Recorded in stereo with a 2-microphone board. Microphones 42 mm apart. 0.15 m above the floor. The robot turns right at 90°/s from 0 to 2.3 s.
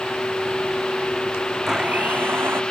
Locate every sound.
1.7 s a blender: 170° right; by 2.6 s 110° right